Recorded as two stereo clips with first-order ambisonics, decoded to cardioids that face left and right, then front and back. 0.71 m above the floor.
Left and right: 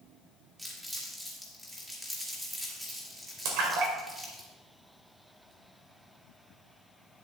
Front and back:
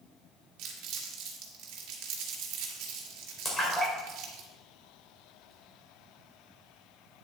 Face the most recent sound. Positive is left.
turn(degrees=-80)